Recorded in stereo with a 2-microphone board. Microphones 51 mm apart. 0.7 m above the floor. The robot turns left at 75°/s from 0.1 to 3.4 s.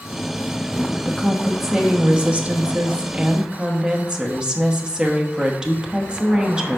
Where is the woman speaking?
15° left (ahead or behind), 1.0 m; by 6.8 s 15° right (ahead or behind), 1.0 m.